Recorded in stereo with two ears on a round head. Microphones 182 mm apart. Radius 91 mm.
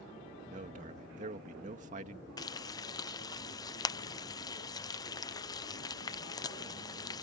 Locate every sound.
0.5 s a man speaking: 40° right (ahead or behind)
2.4 s frying: 20° left (ahead or behind)